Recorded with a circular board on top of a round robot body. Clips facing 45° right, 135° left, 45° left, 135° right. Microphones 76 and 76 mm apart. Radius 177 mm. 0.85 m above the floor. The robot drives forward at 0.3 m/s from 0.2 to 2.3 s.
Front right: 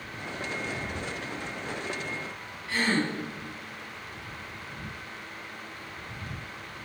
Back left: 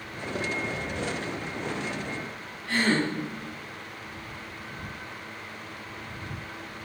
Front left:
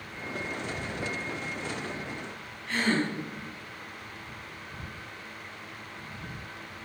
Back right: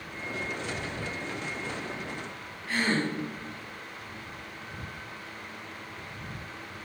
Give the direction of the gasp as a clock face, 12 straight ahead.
7 o'clock.